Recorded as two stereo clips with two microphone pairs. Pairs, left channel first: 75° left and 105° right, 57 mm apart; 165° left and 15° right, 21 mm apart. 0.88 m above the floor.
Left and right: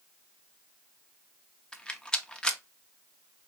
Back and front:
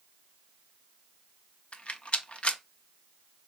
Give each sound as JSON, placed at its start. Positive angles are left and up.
{"t": 1.7, "sound": "a rattle", "azimuth_deg": 150, "distance_m": 0.6}